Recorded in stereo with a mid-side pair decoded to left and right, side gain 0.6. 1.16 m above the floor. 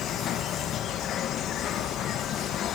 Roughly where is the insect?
Ahead left.